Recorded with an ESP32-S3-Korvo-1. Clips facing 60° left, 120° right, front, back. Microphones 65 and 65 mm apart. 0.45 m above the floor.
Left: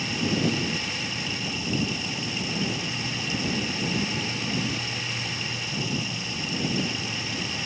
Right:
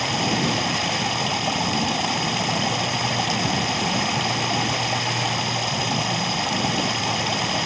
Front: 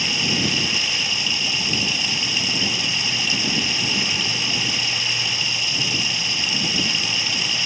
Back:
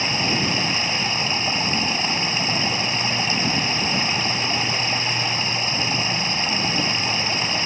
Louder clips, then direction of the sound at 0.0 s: Right 3 dB, back 1 dB; 130° right.